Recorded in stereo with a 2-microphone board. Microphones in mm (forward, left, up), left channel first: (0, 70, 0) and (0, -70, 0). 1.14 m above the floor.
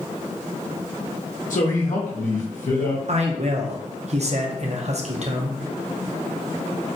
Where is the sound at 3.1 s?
55° right (ahead or behind), 0.6 m.